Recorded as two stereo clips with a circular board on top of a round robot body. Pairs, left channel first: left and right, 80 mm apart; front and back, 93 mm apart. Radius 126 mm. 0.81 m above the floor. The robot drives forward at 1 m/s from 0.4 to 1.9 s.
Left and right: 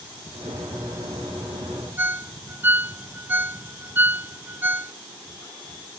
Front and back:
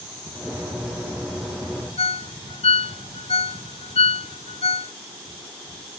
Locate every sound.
2.0 s a ringtone: 20° right